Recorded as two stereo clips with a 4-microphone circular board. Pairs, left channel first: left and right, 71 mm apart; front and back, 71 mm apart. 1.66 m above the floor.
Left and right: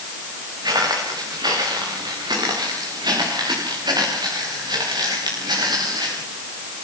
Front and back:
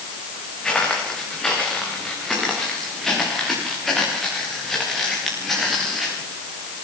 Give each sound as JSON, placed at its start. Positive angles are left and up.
{"t": 0.6, "sound": "footsteps", "azimuth_deg": -80, "distance_m": 10.0}